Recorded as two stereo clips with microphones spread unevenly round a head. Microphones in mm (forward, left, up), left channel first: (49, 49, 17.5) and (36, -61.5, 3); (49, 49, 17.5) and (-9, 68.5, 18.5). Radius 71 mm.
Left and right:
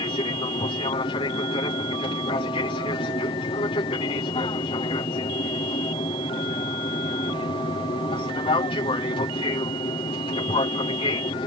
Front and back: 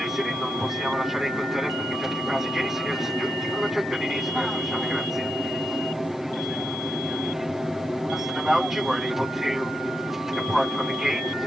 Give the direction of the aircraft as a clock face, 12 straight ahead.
9 o'clock.